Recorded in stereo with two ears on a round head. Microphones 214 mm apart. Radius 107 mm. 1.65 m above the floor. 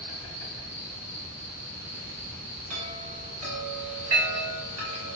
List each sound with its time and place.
0.0 s an insect: 30° right (ahead or behind), 1.2 m
2.7 s a chime: 70° right (ahead or behind), 1.6 m